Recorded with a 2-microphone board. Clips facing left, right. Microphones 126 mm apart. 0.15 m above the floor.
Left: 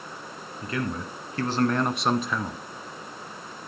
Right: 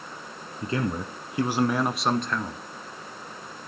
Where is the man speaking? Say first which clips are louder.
Right 2 dB; 30° right (ahead or behind), 1.3 m; by 2.6 s 10° left (ahead or behind), 1.4 m.